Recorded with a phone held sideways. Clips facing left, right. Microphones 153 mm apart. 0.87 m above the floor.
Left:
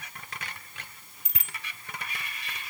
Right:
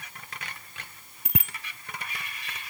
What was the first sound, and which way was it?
A bicycle bell, 65° right (ahead or behind).